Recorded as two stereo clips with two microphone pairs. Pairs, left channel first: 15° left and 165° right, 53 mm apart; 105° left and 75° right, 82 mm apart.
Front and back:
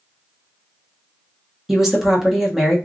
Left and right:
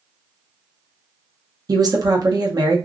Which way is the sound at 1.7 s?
85° right.